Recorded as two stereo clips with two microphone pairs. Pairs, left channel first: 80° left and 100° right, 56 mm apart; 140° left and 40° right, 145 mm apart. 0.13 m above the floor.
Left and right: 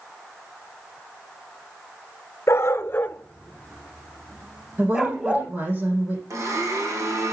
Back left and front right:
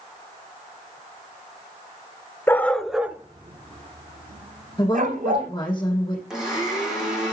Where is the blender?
125° right, 6.5 m.